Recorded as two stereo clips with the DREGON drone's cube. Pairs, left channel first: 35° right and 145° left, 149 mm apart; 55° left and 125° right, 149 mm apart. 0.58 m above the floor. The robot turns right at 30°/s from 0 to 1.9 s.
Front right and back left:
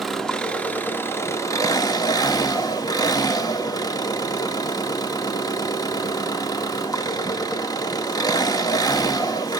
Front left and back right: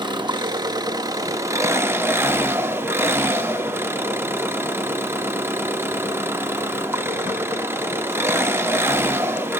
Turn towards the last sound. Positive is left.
turn(degrees=-65)